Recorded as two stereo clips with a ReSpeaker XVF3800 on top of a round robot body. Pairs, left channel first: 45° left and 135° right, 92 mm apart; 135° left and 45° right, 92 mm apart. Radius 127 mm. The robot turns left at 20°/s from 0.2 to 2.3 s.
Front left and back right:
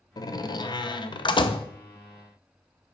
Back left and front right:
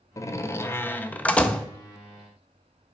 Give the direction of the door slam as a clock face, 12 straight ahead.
9 o'clock.